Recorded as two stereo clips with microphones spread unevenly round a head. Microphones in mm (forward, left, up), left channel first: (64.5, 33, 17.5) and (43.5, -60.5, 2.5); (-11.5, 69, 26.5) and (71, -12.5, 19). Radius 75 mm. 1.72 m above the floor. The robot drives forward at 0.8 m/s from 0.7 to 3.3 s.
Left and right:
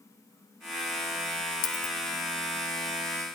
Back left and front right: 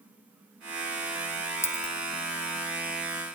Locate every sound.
1.6 s a dropped coin: 75° left; by 1.9 s 85° left